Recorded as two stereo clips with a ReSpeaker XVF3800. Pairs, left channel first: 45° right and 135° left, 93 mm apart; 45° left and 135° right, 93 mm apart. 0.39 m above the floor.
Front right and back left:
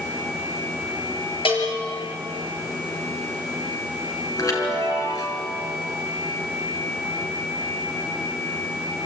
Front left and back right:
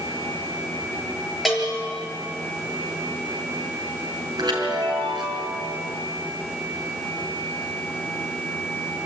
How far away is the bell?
About 5 m.